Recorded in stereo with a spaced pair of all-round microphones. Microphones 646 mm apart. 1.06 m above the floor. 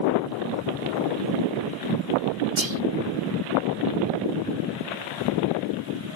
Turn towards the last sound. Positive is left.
turn(degrees=-45)  # may be behind; listen again after turning